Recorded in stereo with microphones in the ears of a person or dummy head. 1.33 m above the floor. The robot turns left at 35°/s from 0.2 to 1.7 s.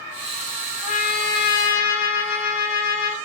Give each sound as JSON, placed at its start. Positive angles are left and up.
{"t": 0.8, "sound": "a trumpet", "azimuth_deg": 140, "distance_m": 0.6}